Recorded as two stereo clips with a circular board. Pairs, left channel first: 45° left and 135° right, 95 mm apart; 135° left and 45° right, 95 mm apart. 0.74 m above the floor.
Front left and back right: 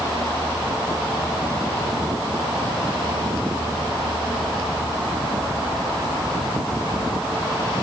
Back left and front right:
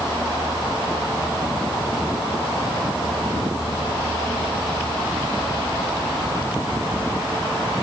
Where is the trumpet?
I don't hear a trumpet.